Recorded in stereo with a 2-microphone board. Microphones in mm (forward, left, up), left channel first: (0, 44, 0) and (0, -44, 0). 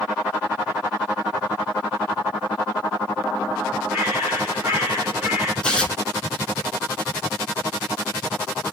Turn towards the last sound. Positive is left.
turn(degrees=10)  # may be behind; listen again after turning